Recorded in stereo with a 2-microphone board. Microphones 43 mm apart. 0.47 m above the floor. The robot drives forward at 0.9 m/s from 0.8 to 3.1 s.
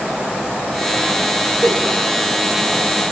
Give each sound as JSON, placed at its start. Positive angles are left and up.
{"t": 1.6, "sound": "a giggle", "side_deg": -60, "distance_m": 1.4}